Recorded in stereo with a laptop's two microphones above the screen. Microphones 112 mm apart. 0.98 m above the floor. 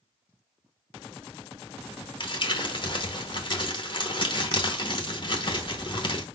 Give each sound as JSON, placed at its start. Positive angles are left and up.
{"t": 2.2, "sound": "crumpling", "side_deg": 45, "distance_m": 0.9}